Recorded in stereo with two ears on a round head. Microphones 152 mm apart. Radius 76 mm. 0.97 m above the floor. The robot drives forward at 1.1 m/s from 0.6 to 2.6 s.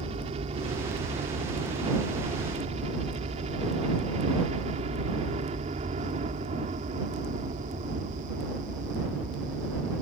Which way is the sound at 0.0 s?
35° right (ahead or behind).